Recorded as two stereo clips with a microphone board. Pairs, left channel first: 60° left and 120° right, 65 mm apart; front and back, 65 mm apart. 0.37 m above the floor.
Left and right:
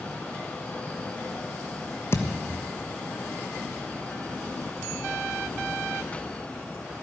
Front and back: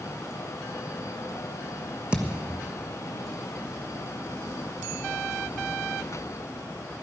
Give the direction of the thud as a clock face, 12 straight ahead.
8 o'clock.